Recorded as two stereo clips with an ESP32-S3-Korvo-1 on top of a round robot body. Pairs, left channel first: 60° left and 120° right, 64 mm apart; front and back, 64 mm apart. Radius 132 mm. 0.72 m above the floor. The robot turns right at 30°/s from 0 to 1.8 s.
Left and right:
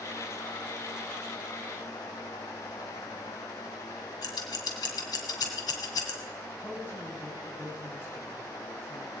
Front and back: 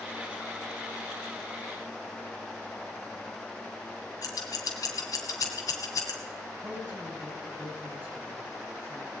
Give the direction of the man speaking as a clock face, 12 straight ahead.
8 o'clock.